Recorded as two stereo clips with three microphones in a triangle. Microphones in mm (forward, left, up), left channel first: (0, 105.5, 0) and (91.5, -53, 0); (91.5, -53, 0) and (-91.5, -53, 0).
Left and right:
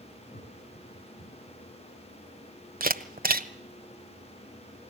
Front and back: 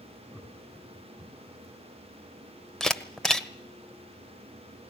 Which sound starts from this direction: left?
Laughter, at 0.3 s.